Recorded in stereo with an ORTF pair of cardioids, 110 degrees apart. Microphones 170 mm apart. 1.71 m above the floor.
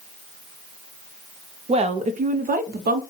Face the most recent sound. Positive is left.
turn(degrees=-65)